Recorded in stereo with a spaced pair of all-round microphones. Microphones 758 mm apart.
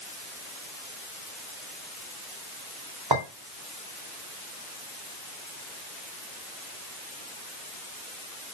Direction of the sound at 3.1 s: 30° right (ahead or behind).